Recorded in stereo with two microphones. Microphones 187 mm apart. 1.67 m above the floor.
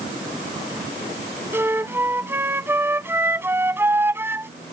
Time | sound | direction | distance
1.5 | a flute | 10° right (ahead or behind) | ?